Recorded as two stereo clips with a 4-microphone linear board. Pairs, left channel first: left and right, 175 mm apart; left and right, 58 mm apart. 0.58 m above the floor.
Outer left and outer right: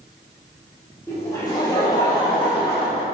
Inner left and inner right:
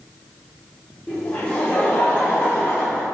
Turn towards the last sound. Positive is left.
turn(degrees=25)  # may be behind; listen again after turning